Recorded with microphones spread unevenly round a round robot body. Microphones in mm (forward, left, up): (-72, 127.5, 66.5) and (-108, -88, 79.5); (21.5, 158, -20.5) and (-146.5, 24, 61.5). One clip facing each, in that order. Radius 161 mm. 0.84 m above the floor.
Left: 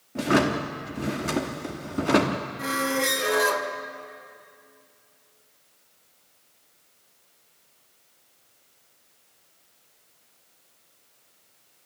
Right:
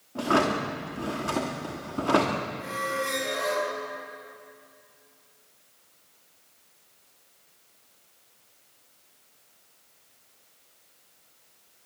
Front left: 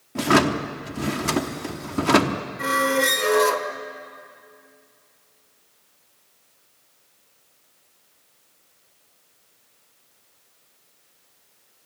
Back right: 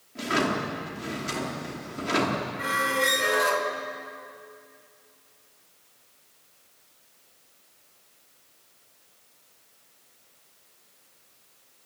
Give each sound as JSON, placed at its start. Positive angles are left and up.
{"t": 0.1, "sound": "a drawer", "azimuth_deg": 5, "distance_m": 0.9}
{"t": 2.6, "sound": "a squeak", "azimuth_deg": 70, "distance_m": 1.9}